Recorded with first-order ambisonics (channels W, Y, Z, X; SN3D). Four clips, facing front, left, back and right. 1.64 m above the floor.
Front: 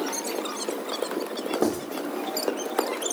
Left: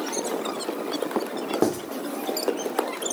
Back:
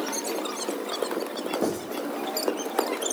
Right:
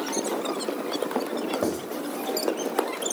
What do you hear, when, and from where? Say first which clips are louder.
1.6 s writing: left 6 dB, front 3 dB; 70° left, 2 m